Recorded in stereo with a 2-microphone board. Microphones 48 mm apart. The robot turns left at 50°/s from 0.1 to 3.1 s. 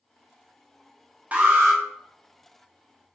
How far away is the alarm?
About 0.5 m.